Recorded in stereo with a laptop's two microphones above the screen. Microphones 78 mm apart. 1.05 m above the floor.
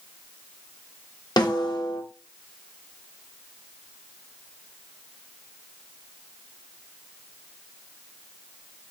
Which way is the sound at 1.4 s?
55° left (ahead or behind).